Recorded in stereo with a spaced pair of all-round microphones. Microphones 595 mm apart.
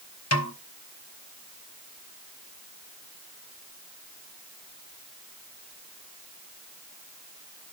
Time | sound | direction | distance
0.3 | a snare drum | 25° left (ahead or behind) | 0.9 m